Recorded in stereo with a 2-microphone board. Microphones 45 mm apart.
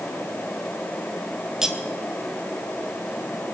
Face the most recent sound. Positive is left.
turn(degrees=-10)  # may be behind; listen again after turning